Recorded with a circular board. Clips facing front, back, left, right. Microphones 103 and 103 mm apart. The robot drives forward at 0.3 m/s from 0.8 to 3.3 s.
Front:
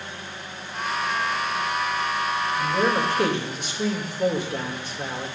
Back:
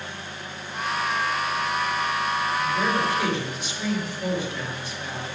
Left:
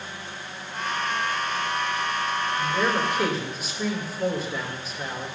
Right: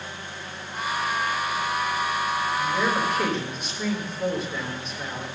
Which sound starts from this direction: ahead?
A man speaking, at 2.6 s.